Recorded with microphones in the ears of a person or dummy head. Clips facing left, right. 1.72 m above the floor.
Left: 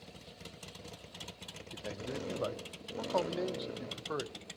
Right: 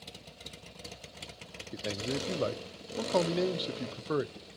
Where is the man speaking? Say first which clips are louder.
Right 6 dB; 40° right (ahead or behind), 0.8 m.